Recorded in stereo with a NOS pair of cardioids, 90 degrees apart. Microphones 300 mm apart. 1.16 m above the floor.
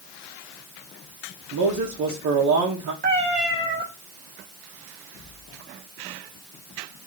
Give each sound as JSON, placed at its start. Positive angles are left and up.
{"t": 1.5, "sound": "a man speaking", "azimuth_deg": -65, "distance_m": 1.2}
{"t": 3.0, "sound": "a cat meowing", "azimuth_deg": -30, "distance_m": 1.9}